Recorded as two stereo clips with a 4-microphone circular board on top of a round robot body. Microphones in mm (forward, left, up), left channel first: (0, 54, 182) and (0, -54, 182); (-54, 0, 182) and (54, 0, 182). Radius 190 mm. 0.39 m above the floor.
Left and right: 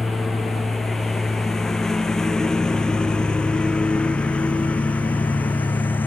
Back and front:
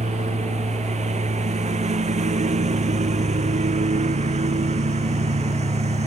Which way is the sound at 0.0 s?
Straight ahead.